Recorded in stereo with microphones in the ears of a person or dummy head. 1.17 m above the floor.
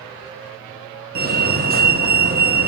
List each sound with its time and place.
1.1 s a fire alarm: 40° right (ahead or behind), 1.7 m